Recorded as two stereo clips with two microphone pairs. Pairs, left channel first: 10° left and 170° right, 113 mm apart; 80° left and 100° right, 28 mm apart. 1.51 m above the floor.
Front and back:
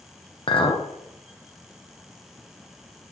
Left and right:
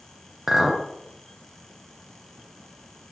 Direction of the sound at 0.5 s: 20° right.